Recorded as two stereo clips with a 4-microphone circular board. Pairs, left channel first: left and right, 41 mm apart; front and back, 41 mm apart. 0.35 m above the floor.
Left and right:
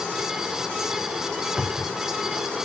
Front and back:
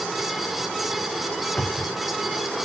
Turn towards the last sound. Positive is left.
turn(degrees=-10)